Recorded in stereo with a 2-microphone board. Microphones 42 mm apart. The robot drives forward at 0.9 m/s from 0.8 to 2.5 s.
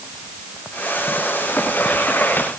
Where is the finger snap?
I don't hear a finger snap.